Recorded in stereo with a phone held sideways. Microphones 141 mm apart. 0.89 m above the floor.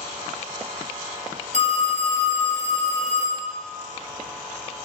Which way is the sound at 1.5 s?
55° right (ahead or behind).